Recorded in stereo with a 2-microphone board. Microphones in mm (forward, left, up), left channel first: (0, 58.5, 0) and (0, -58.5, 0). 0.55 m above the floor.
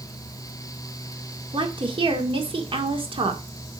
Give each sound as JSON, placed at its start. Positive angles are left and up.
{"t": 1.5, "sound": "a woman speaking", "side_deg": -45, "distance_m": 1.8}